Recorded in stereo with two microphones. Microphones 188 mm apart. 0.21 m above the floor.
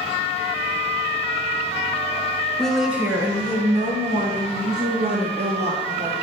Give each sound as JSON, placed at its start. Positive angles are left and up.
{"t": 2.6, "sound": "a woman speaking", "side_deg": 5, "distance_m": 2.0}